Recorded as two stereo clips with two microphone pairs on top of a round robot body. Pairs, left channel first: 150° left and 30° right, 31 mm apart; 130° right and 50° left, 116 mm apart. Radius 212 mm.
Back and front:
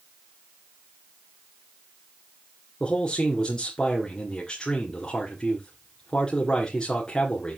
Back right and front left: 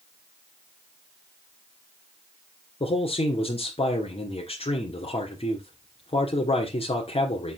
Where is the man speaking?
155° right, 2 m.